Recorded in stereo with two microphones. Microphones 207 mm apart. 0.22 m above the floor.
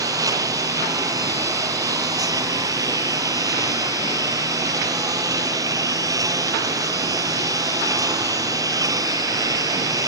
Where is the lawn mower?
15° right (ahead or behind).